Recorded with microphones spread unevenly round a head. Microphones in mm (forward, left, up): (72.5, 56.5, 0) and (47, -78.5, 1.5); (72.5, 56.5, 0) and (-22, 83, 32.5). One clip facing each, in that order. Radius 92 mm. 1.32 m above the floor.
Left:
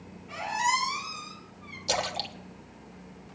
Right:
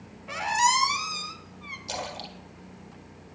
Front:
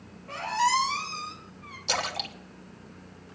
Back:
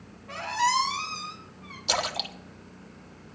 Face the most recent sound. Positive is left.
turn(degrees=100)